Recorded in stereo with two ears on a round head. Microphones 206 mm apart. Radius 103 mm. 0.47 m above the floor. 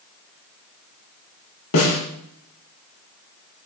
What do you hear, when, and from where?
1.7 s a snare drum: 65° left (ahead or behind), 6.5 m